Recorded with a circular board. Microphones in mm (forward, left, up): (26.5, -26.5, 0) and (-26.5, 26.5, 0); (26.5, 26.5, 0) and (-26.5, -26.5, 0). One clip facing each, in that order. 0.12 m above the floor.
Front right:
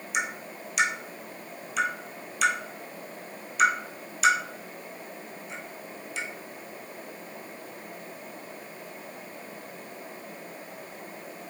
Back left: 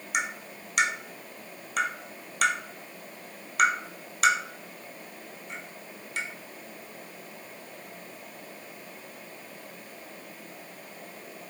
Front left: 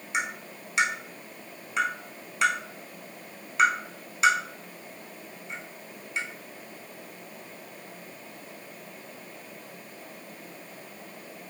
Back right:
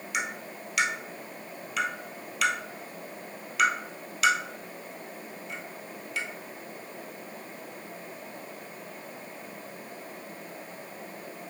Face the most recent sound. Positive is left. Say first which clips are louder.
# even, front left 2 dB
turn(degrees=105)